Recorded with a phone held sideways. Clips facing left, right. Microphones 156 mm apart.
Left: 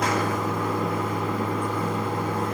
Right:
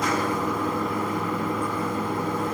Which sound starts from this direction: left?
Running water, at 0.0 s.